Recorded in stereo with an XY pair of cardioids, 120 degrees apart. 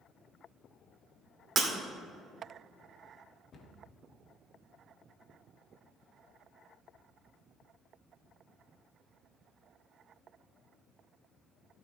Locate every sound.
1.6 s breaking glass: 40° right, 2 m
3.5 s a cupboard door: 50° left, 1.6 m